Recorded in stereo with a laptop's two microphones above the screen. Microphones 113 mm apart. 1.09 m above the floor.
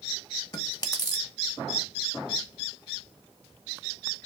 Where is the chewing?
35° left (ahead or behind), 1.0 m.